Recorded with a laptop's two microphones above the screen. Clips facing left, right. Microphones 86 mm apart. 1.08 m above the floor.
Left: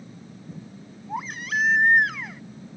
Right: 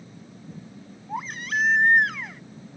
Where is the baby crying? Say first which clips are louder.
Even; 5° left (ahead or behind).